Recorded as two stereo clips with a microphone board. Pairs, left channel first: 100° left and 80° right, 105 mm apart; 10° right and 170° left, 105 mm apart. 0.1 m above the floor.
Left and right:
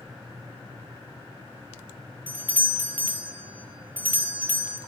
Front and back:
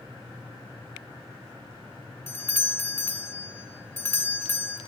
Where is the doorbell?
40° right, 1.6 m.